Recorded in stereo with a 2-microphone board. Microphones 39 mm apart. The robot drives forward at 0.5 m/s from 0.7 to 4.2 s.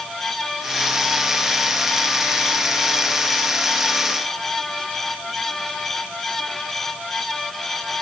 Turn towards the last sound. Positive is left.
No sound to turn to.